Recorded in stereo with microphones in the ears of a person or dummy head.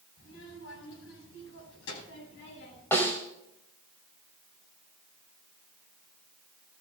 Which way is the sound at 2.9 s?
10° left (ahead or behind).